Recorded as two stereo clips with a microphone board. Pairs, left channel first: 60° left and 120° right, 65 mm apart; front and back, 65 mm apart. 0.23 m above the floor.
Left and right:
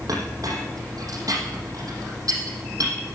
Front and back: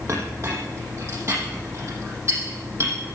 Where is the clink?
140° right, 5.5 m.